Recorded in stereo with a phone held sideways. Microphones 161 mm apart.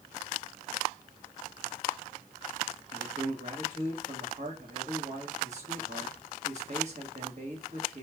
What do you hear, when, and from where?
2.9 s a man speaking: 50° right (ahead or behind), 1.5 m